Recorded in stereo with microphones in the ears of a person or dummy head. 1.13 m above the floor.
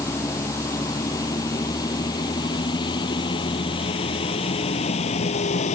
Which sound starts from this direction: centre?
A vehicle, at 0.0 s.